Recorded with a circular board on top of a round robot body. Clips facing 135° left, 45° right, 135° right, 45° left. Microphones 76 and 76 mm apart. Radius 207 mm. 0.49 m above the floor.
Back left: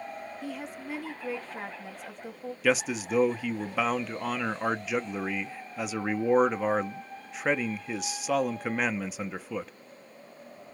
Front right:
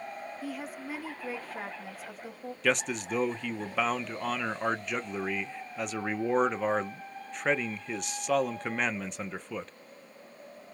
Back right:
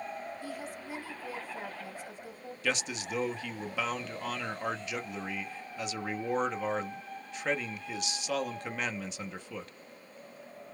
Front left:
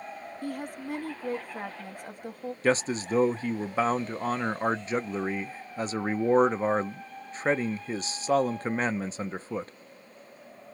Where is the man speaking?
50° left, 0.7 m.